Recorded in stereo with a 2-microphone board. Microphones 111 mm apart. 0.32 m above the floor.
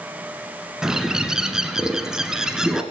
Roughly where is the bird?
Centre.